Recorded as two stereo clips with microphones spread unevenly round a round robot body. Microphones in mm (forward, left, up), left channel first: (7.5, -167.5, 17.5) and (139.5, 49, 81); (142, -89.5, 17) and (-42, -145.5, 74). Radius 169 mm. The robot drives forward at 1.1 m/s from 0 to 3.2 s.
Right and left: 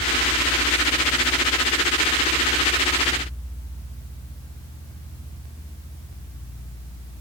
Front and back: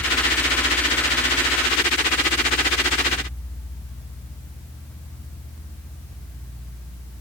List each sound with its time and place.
Only background noise.